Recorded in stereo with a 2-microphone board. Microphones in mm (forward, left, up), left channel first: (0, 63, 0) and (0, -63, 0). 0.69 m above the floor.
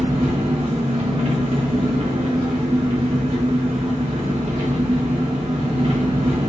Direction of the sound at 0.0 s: 60° right (ahead or behind).